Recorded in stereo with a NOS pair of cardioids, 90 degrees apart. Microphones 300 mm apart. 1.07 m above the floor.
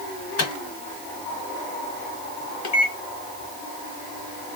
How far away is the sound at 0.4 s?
About 1.1 m.